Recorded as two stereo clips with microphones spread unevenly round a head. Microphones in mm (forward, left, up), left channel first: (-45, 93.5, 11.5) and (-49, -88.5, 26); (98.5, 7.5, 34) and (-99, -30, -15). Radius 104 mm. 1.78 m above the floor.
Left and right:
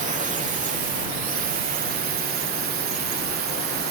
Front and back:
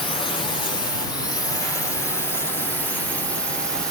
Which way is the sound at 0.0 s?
60° right.